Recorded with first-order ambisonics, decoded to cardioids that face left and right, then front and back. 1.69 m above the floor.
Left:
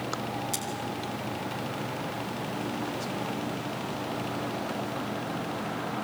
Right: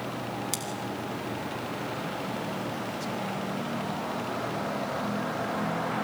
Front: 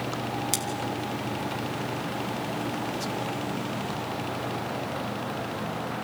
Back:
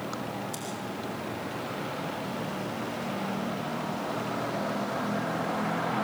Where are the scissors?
20° right, 2.5 m.